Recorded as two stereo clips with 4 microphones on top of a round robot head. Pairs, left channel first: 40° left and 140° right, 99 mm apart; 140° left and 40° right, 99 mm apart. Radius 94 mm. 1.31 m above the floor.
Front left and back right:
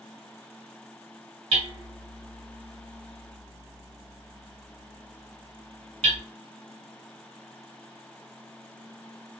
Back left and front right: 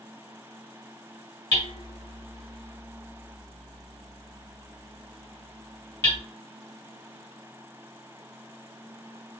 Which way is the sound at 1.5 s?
160° right.